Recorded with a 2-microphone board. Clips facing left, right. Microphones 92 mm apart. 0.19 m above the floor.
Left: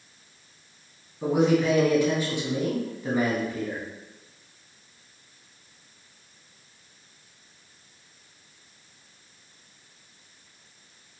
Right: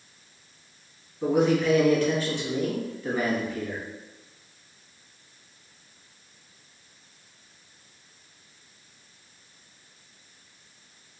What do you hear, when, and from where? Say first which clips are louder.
1.2 s a man speaking: even; 15° left (ahead or behind), 1.2 m